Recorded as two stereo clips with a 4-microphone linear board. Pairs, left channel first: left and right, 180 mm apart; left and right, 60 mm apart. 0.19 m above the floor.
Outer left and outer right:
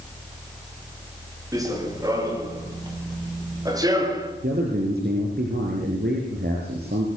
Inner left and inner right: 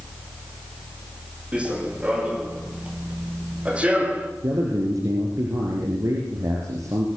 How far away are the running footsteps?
About 7.5 m.